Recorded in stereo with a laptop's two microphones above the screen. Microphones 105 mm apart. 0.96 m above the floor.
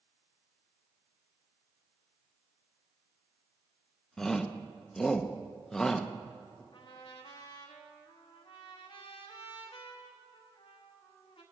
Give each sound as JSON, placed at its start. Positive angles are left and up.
{"t": 4.2, "sound": "a shout", "side_deg": 5, "distance_m": 0.6}
{"t": 6.7, "sound": "a trumpet", "side_deg": 60, "distance_m": 1.1}